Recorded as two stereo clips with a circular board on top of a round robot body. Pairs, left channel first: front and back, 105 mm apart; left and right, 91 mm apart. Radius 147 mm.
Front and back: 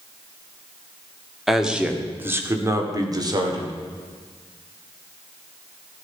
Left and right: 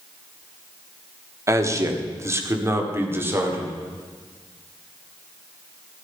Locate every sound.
1.5 s a man speaking: 95° right, 1.6 m; by 3.7 s 150° right, 2.5 m